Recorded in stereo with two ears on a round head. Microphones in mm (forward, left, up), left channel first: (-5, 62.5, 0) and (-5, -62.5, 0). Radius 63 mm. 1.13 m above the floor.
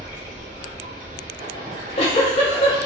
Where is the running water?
55° right (ahead or behind), 1.0 m.